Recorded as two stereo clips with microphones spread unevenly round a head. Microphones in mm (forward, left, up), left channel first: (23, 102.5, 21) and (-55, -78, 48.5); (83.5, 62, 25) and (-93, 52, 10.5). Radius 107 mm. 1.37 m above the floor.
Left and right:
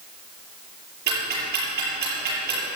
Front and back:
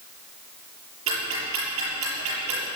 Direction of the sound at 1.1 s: 150° right.